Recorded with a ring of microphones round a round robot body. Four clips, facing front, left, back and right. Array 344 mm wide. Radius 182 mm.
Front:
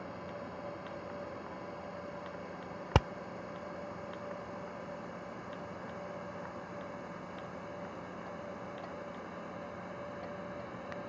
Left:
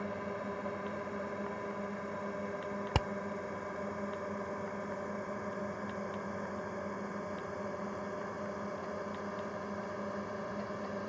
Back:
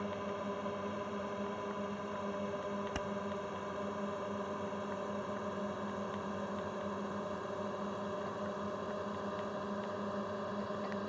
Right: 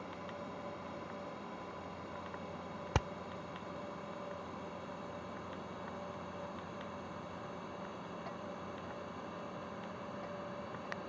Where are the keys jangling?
No keys jangling in this recording.